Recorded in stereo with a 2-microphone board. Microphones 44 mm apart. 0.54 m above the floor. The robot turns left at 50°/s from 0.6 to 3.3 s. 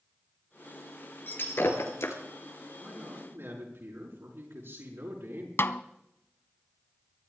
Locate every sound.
1.3 s breaking glass: 45° left (ahead or behind), 2.5 m; by 2.2 s 85° left, 2.5 m
2.8 s a man speaking: 35° right (ahead or behind), 6.5 m; by 5.5 s 65° right (ahead or behind), 6.5 m
5.6 s a snare drum: 60° left (ahead or behind), 0.7 m